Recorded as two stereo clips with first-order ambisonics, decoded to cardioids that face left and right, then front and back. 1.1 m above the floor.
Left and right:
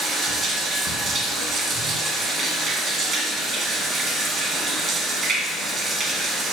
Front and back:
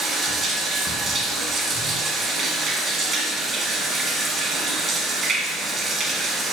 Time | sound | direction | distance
0.0 | running water | 135° right | 1.1 m